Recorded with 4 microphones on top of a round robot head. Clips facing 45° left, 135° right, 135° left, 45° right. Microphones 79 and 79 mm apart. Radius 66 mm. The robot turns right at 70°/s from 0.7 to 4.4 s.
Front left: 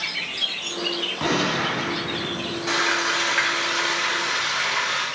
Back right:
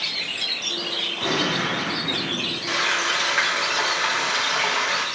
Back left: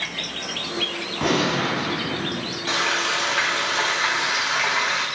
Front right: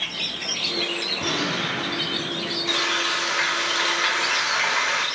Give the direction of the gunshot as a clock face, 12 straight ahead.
9 o'clock.